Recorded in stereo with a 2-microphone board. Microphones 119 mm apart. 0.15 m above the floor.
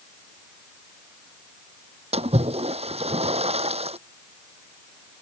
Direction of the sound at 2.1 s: 65° right (ahead or behind).